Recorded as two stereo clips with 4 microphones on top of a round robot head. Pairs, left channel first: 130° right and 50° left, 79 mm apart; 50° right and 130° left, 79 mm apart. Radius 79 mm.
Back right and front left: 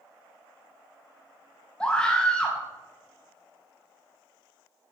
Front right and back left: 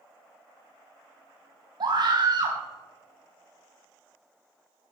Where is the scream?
155° left, 3.5 m.